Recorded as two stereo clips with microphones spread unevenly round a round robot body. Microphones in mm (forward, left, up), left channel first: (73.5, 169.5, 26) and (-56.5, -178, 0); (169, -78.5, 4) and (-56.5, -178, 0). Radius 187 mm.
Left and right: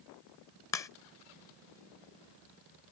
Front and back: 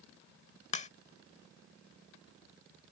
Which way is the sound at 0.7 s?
10° right.